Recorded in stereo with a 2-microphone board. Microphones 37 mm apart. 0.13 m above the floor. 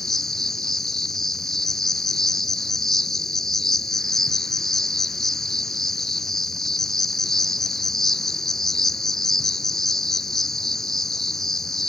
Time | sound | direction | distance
0.0 | an insect | 10° left (ahead or behind) | 0.8 m